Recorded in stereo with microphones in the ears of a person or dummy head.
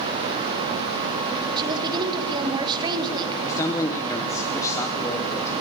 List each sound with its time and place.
1.6 s a woman speaking: 25° right (ahead or behind), 2.0 m
3.5 s a man speaking: 15° left (ahead or behind), 1.3 m